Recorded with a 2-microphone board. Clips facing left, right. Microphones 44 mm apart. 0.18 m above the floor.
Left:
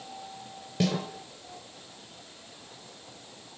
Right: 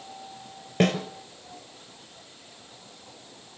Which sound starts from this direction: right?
A snare drum, at 0.8 s.